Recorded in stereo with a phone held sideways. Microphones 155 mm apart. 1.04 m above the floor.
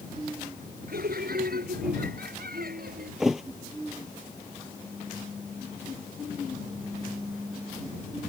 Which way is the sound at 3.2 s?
Centre (ahead or behind).